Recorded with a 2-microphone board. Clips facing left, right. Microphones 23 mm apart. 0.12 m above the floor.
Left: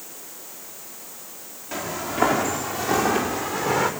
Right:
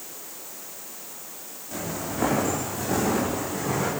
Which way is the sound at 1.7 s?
35° left (ahead or behind).